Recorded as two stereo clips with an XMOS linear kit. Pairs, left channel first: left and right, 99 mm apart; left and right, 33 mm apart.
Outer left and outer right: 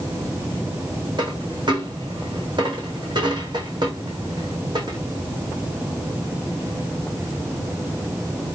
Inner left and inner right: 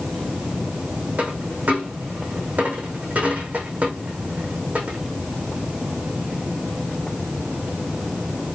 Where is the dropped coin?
45° right (ahead or behind), 3.5 m.